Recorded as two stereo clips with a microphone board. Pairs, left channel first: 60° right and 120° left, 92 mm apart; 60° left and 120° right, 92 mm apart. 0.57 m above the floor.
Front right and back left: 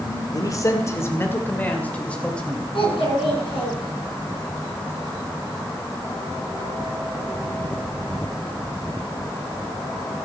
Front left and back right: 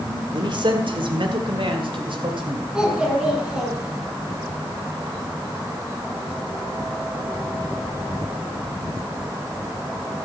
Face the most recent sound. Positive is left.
turn(degrees=-40)